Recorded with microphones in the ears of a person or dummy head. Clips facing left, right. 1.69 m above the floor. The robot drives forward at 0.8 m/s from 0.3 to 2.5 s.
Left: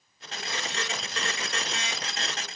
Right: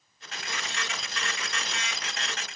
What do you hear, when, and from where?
Only background noise.